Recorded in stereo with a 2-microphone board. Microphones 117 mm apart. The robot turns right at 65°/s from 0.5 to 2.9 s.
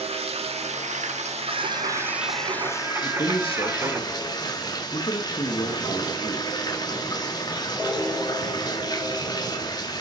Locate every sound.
0.0 s running water: 120° right, 1.7 m; by 10.0 s 35° left, 1.7 m
1.4 s singing: 115° right, 0.9 m; by 4.0 s 20° right, 0.9 m
3.0 s a man speaking: 50° left (ahead or behind), 2 m